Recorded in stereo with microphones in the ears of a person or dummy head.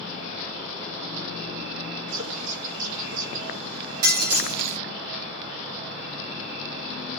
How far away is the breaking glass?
About 1.8 m.